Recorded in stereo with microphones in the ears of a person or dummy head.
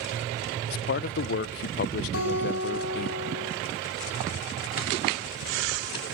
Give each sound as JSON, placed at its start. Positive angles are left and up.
{"t": 0.7, "sound": "a man speaking", "side_deg": 50, "distance_m": 0.5}
{"t": 2.1, "sound": "a guitar", "side_deg": 85, "distance_m": 7.0}